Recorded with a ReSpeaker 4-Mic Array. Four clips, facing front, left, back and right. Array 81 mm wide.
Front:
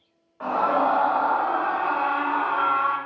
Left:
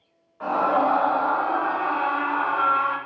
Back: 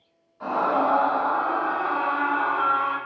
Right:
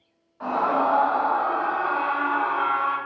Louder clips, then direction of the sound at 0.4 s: Left 1 dB, front 1 dB; 15° left.